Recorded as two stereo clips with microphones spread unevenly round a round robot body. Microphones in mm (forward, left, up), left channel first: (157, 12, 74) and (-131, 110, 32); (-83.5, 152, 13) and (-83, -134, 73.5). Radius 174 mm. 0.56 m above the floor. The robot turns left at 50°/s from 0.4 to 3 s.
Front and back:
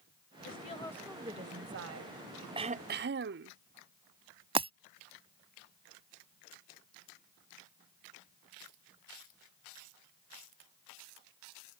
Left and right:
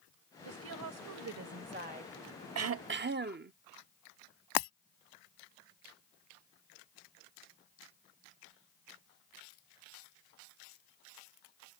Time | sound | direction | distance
0.5 | a woman speaking | 80° right | ?
2.5 | throat clearing | 125° right | ?
4.5 | breaking glass | 90° left | ?